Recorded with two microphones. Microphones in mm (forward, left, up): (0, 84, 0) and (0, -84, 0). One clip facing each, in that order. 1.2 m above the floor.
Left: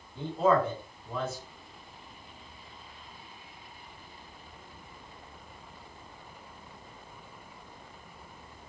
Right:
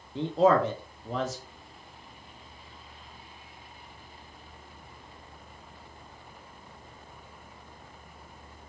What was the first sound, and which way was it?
A man speaking, 80° right.